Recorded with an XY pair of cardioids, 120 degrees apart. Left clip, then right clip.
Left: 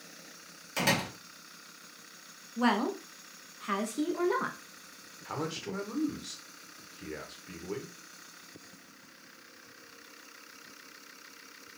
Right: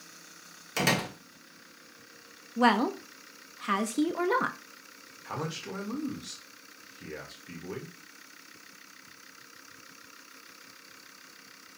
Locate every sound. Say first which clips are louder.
0.8 s a door slam: right 1 dB; 20° right, 1.5 m
2.6 s a woman speaking: right 5 dB; 30° right, 0.6 m
5.2 s a man speaking: even; straight ahead, 1.3 m